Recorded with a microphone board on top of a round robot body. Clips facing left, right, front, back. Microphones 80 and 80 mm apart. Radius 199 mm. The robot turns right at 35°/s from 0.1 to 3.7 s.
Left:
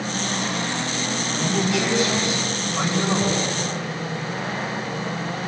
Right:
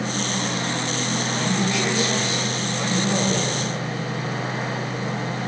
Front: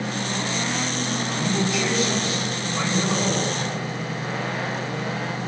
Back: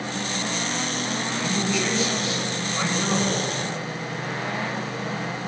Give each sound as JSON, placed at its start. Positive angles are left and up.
{"t": 1.4, "sound": "a man speaking", "azimuth_deg": 20, "distance_m": 9.5}